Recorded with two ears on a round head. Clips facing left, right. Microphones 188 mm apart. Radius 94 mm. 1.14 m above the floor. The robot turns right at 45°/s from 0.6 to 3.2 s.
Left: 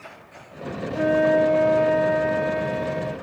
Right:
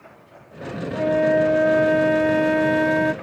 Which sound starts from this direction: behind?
A flute, at 0.9 s.